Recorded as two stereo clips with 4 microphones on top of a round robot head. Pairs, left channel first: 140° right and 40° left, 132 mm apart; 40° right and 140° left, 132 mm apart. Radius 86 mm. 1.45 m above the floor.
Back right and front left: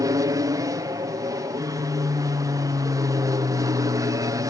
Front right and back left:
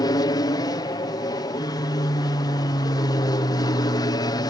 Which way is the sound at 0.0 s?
5° right.